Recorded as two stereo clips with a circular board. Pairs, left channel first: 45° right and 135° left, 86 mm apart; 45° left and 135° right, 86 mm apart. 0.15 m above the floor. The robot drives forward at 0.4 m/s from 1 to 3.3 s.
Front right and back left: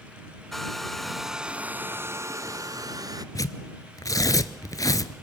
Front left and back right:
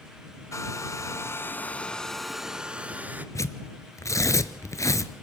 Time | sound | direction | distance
0.5 | a hair dryer | 45° left | 0.6 m
3.4 | tearing paper | 5° right | 0.9 m